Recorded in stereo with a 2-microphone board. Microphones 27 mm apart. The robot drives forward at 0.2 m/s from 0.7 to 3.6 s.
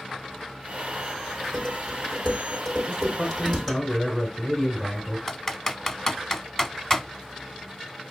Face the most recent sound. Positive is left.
turn(degrees=15)  # may be behind; listen again after turning